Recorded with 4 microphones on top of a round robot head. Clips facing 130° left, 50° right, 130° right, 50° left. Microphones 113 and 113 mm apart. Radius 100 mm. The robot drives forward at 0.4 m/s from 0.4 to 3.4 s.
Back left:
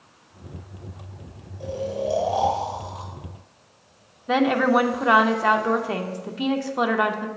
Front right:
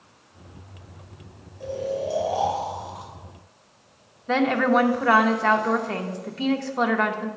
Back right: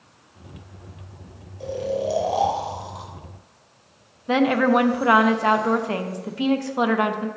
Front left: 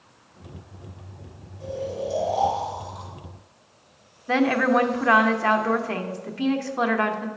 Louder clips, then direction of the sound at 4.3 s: Back left 1 dB, back right 2 dB; 170° right.